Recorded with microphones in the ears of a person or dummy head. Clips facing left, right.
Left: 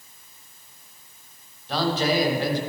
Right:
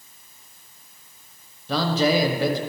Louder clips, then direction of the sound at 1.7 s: Right 2 dB; 75° right (ahead or behind).